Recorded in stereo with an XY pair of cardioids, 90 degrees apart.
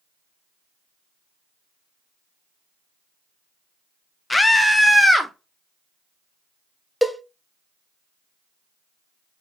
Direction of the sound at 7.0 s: Straight ahead.